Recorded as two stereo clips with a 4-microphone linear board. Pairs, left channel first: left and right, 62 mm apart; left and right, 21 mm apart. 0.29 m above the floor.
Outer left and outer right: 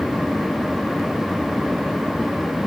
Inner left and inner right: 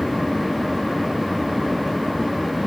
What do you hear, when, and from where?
Only background noise.